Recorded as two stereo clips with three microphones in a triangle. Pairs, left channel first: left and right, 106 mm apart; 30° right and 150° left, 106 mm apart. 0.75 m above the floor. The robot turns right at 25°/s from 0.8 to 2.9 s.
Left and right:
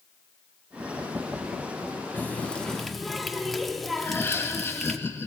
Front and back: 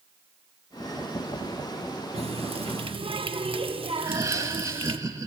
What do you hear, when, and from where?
2.1 s a running tap: 160° left, 0.6 m; by 5.0 s straight behind, 0.6 m
4.0 s laughter: 135° left, 0.7 m